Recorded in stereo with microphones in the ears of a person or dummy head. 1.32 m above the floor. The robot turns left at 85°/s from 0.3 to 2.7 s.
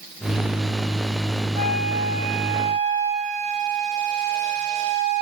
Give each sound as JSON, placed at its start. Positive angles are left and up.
{"t": 1.6, "sound": "a flute", "azimuth_deg": -40, "distance_m": 8.5}